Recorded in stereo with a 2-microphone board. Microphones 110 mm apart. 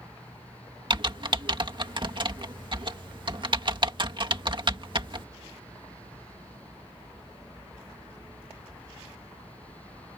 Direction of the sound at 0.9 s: 45° right (ahead or behind).